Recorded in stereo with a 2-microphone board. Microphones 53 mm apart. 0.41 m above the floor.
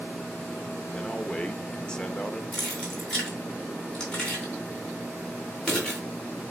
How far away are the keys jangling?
About 3.5 m.